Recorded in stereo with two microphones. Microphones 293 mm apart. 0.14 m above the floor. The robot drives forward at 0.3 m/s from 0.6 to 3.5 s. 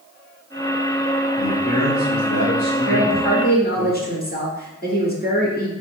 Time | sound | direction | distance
1.4 | a man speaking | 35° left (ahead or behind) | 1.5 m
2.9 | a woman speaking | 35° left (ahead or behind) | 1.5 m